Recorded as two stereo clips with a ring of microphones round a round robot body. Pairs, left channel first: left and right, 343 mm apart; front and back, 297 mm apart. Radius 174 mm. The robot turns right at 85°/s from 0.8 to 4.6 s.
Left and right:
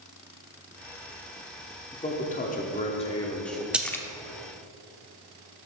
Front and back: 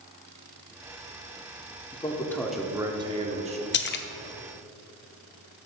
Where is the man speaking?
40° left, 0.8 m; by 3.6 s 175° right, 0.8 m.